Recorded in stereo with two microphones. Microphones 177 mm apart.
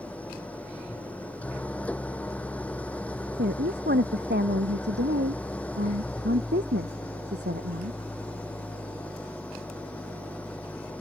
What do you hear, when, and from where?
0.0 s an engine running: 10° left (ahead or behind)
3.4 s a woman speaking: 75° right (ahead or behind)